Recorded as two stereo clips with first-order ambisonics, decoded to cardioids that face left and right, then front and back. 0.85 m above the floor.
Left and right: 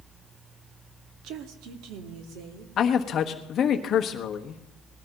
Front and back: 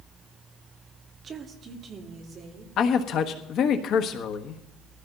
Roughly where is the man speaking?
Ahead left.